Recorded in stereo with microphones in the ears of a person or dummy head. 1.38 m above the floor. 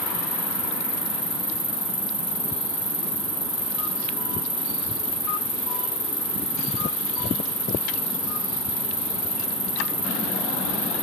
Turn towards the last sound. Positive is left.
turn(degrees=35)  # may be behind; listen again after turning